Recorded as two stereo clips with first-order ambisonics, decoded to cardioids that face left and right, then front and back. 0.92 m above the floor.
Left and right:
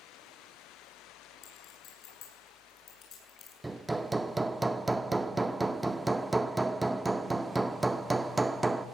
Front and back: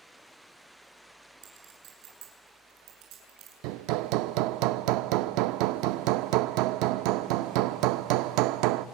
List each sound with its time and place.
1.4 s a clink: 140° left, 8 m
3.6 s hammering: 170° right, 0.6 m